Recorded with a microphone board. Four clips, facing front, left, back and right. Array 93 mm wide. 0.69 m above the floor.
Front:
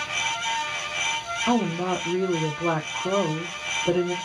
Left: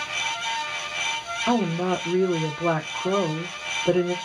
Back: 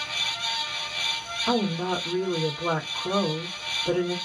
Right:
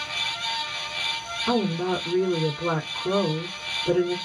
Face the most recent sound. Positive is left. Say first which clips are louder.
# left 1 dB, front 2 dB
turn(degrees=65)